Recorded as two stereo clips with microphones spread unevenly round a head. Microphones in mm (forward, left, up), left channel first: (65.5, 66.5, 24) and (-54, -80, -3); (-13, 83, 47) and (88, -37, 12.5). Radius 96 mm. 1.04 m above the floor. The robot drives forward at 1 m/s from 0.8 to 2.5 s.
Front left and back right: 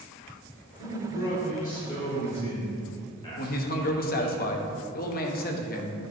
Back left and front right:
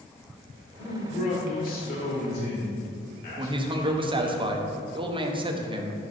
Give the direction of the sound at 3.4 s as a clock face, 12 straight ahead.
12 o'clock.